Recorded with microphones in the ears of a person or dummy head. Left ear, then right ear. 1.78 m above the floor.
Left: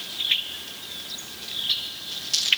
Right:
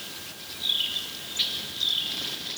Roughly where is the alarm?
I don't hear an alarm.